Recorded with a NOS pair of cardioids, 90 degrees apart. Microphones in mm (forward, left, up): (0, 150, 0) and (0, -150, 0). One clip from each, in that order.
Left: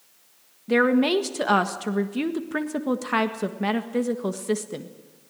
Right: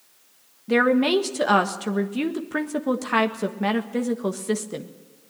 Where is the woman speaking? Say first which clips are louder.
Right 1 dB; straight ahead, 1.5 m.